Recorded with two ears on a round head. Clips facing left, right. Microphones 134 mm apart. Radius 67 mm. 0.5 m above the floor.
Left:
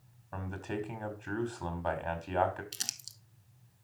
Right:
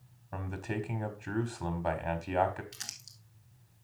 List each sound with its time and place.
0.3 s a man speaking: 10° right (ahead or behind), 1.2 m
2.7 s crumpling: 35° left (ahead or behind), 0.9 m